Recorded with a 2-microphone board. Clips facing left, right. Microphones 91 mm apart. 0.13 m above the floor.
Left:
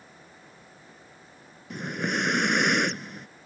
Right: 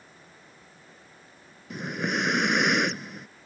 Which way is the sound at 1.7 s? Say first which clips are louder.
Even; centre (ahead or behind).